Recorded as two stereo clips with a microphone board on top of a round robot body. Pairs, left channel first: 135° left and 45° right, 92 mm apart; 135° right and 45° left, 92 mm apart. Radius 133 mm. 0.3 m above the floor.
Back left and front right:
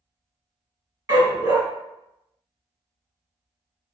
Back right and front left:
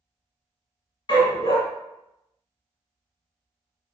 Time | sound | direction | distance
1.1 | a dog barking | 100° right | 2.5 m